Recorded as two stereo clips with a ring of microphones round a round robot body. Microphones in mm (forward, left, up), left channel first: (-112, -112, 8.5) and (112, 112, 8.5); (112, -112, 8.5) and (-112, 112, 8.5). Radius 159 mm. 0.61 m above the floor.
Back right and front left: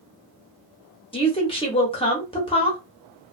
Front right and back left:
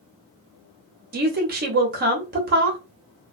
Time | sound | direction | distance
1.1 | a woman speaking | 165° left | 0.8 m